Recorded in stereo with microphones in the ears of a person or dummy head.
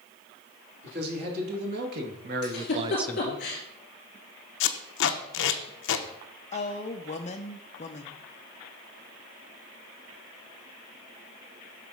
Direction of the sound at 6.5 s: 35° left (ahead or behind).